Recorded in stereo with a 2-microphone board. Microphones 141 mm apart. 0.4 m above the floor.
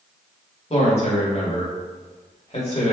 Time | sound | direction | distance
0.7 | a man speaking | 45° left (ahead or behind) | 1.1 m